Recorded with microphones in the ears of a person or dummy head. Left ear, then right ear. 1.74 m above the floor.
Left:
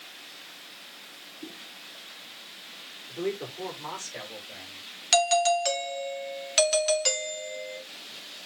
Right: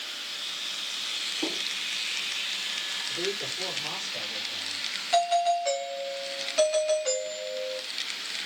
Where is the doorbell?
85° left, 2.5 m.